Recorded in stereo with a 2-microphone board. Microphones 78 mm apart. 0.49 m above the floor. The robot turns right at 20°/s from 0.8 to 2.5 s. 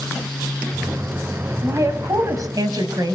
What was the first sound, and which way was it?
A woman speaking, 40° right (ahead or behind).